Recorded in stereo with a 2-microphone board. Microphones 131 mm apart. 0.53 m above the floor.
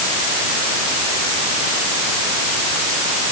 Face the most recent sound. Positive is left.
No sound to turn to.